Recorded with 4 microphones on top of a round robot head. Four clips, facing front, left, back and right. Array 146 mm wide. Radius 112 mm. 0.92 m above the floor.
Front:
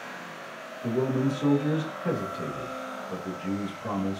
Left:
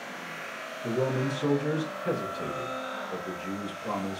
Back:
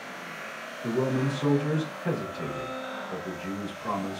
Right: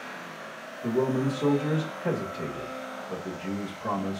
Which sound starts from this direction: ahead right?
A man speaking, at 0.8 s.